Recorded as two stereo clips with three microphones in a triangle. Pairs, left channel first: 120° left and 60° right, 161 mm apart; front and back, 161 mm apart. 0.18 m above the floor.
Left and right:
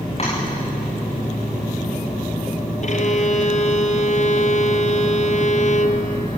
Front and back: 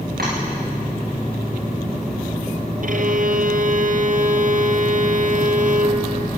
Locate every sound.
0.2 s tapping: 170° left, 10 m
2.8 s a violin: 155° left, 1.6 m